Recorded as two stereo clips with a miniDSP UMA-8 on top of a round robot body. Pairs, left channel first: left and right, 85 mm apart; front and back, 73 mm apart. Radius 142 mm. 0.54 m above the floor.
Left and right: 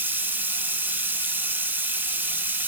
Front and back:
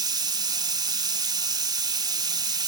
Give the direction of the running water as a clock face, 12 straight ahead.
5 o'clock.